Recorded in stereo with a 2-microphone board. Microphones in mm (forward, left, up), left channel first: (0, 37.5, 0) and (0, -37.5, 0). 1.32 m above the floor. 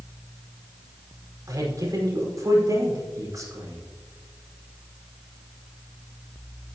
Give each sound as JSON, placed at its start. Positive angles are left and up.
{"t": 1.5, "sound": "a man speaking", "side_deg": -50, "distance_m": 5.0}